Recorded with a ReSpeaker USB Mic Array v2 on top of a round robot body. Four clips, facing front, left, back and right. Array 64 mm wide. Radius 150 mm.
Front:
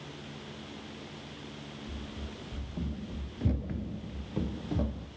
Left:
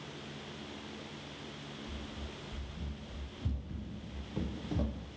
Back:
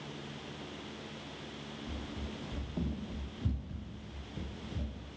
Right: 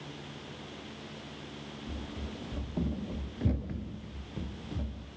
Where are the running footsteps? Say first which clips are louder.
Right 4 dB, back 2 dB; 120° right, 2 m; by 5.1 s 25° left, 1.9 m.